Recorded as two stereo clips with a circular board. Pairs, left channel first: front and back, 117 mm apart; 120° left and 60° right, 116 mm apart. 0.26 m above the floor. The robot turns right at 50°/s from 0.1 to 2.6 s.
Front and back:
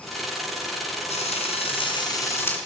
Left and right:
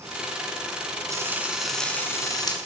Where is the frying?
Straight ahead, 2 m; by 2.6 s 75° left, 2 m.